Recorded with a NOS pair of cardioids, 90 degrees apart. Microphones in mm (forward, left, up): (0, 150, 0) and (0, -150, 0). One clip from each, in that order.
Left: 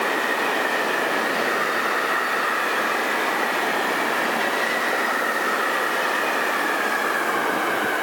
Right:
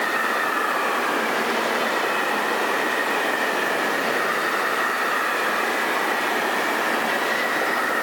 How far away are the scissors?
No scissors in this recording.